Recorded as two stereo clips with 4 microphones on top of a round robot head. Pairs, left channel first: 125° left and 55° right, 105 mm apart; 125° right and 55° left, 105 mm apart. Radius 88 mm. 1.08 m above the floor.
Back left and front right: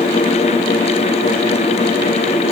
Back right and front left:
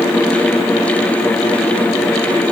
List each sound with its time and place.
Only background noise.